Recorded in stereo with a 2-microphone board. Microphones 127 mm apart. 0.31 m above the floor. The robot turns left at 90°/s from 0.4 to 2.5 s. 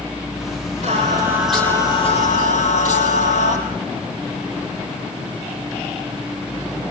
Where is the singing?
120° right, 8 m; by 3.6 s 90° left, 8 m.